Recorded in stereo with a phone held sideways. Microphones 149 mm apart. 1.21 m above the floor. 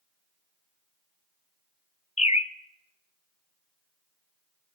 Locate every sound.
2.2 s a bird: 50° left (ahead or behind), 0.7 m